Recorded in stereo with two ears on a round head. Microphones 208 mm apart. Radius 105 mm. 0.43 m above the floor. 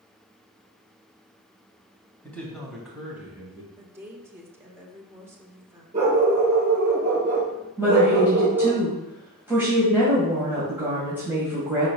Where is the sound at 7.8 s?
10° right (ahead or behind), 2.5 m.